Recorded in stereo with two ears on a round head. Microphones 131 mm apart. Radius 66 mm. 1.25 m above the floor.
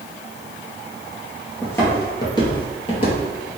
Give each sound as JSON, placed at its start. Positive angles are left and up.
{"t": 1.6, "sound": "footsteps", "side_deg": 15, "distance_m": 1.6}